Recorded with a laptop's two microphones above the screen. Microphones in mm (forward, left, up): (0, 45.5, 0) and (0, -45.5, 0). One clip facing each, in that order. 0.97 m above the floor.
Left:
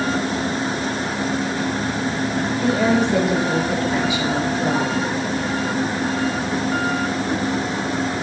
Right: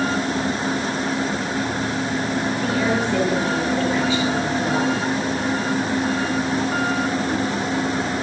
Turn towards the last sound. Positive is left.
turn(degrees=10)  # may be behind; listen again after turning